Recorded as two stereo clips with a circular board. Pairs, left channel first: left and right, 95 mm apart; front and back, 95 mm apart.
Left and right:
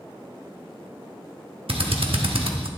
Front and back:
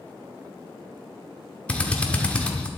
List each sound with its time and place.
1.7 s a drill: 75° right, 1.0 m